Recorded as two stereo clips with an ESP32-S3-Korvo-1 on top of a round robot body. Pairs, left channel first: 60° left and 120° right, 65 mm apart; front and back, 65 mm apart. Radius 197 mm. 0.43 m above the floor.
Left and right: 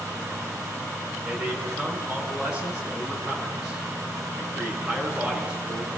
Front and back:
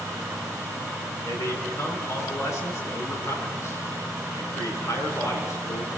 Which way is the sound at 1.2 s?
40° right.